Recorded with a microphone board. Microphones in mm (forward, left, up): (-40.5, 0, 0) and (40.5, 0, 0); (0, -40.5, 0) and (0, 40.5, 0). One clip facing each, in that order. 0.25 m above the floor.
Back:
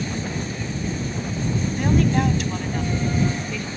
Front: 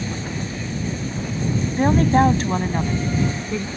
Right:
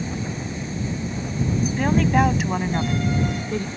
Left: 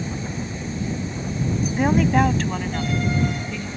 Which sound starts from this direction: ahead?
A woman speaking, at 1.8 s.